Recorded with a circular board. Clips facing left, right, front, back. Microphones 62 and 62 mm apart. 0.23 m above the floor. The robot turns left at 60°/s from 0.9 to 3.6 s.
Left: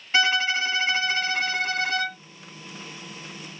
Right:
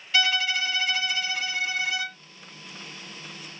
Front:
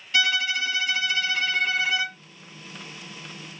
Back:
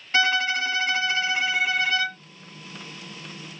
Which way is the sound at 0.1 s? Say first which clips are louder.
Left 3 dB, back 2 dB; 140° left.